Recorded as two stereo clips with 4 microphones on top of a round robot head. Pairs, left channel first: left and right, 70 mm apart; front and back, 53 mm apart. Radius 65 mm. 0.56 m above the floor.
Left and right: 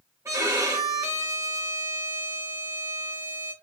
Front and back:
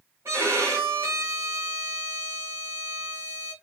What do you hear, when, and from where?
0.2 s a violin: 140° right, 2.5 m